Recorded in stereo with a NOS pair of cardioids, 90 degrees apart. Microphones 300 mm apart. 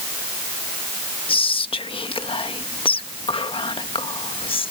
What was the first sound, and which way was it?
Whispering, 20° left.